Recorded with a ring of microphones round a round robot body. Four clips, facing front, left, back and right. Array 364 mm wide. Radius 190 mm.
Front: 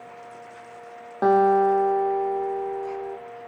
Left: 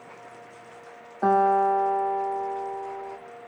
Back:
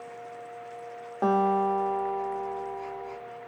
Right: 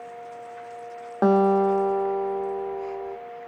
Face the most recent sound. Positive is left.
turn(degrees=-80)